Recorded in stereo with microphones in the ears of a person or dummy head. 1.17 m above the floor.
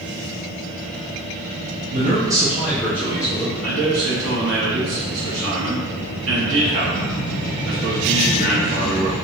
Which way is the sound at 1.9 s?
35° right (ahead or behind).